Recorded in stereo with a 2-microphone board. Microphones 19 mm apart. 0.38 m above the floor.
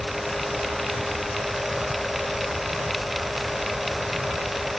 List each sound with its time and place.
Only background noise.